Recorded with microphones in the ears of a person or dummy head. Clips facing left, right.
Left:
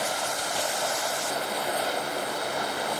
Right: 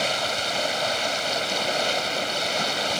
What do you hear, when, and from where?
0.0 s running water: 40° right (ahead or behind)